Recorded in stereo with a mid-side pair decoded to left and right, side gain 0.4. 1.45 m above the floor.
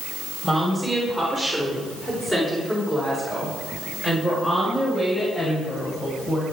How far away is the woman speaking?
About 4 m.